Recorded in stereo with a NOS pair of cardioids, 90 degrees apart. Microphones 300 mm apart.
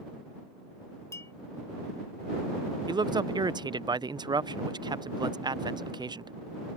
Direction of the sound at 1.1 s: 10° left.